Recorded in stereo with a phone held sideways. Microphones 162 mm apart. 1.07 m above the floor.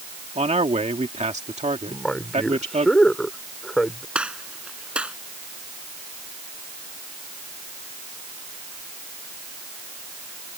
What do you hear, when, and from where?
0.3 s a man speaking: 45° right (ahead or behind)
1.9 s a man speaking: 5° left (ahead or behind)
4.2 s a gunshot: 5° right (ahead or behind)